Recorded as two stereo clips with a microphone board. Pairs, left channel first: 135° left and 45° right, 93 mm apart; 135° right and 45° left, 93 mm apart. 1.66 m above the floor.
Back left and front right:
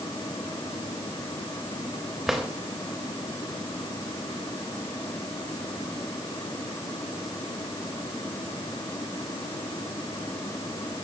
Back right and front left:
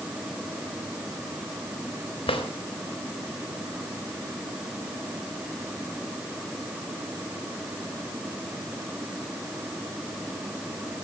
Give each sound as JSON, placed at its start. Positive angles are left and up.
{"t": 2.3, "sound": "a drawer", "azimuth_deg": -130, "distance_m": 3.5}